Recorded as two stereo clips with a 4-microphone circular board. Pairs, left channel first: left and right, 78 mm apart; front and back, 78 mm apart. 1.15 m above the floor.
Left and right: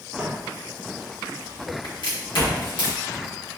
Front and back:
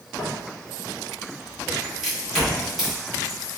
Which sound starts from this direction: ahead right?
Footsteps, at 0.2 s.